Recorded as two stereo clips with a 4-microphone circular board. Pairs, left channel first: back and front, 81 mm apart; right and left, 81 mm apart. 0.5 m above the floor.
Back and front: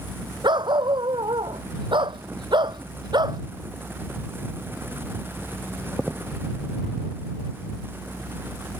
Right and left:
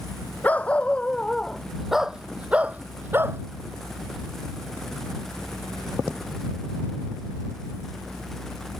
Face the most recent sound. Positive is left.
turn(degrees=30)